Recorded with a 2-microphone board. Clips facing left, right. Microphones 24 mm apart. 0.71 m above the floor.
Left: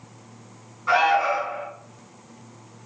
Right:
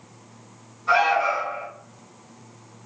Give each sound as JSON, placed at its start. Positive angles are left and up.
{"t": 0.9, "sound": "an alarm", "side_deg": 35, "distance_m": 1.9}